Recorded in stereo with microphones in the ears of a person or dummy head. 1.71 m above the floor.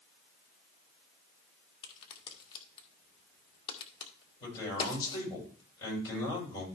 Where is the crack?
25° left (ahead or behind), 1.8 m.